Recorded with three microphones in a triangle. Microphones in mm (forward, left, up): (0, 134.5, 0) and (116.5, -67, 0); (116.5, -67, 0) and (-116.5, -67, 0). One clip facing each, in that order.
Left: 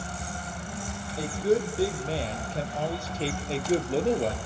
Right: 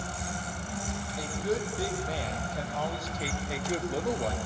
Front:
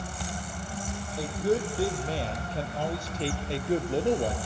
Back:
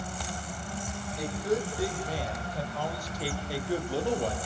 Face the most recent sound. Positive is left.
turn(degrees=65)